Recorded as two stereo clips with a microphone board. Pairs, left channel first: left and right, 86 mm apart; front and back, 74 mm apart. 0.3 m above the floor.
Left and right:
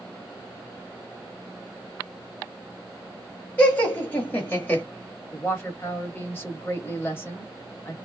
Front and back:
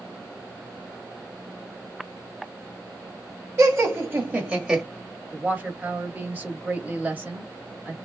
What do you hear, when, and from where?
3.6 s laughter: 155° left, 1.4 m; by 4.8 s 110° left, 1.1 m
5.3 s a woman speaking: 130° left, 1.4 m